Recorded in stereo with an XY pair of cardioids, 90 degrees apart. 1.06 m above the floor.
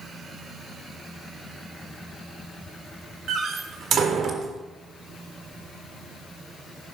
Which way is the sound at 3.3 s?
65° right.